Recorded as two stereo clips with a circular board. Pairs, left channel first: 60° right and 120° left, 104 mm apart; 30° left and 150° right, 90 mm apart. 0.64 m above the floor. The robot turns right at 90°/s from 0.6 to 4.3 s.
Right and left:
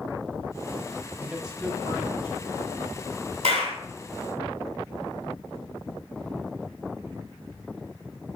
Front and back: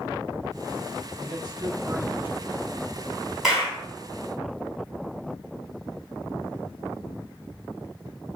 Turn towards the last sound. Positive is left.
turn(degrees=-160)